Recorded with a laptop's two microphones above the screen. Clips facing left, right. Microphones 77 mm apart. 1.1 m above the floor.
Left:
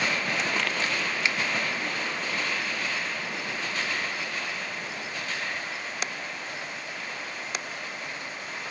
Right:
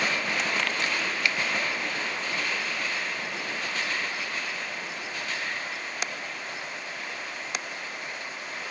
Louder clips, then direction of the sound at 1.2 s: Even; 25° left (ahead or behind).